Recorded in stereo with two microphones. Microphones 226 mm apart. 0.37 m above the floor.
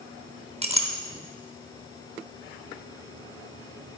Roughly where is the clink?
Right.